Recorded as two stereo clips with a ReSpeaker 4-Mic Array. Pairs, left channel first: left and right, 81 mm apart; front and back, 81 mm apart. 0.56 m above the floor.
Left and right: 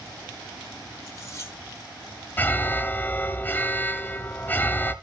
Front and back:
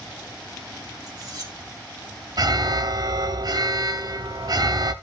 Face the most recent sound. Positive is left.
turn(degrees=155)